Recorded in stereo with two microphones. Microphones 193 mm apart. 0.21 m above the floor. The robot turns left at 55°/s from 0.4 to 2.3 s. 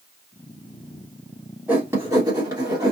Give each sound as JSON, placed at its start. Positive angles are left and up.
{"t": 1.7, "sound": "writing", "side_deg": -10, "distance_m": 1.5}